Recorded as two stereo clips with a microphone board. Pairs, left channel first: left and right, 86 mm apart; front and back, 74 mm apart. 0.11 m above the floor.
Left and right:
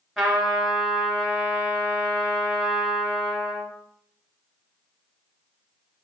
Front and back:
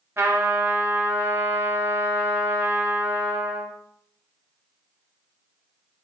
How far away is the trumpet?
About 1.1 m.